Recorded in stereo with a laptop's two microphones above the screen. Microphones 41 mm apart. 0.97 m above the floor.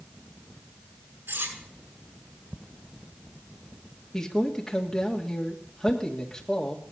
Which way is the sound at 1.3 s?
80° right.